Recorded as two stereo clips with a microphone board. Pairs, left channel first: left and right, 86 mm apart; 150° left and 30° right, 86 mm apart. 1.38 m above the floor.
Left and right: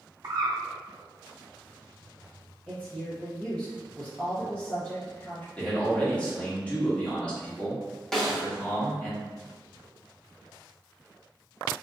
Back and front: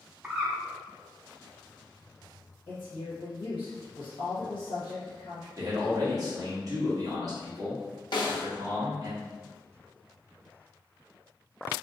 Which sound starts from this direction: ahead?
A man speaking, at 5.6 s.